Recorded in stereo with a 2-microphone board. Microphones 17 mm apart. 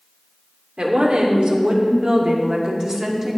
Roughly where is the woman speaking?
Right.